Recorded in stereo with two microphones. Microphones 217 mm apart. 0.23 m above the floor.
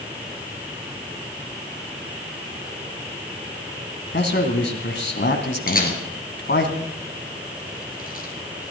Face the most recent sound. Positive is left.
turn(degrees=40)  # may be behind; listen again after turning